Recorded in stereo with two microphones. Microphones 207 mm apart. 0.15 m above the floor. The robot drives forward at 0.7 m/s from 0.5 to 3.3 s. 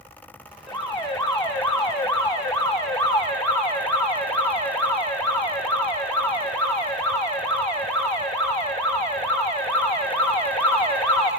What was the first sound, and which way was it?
An alarm, 5° left (ahead or behind).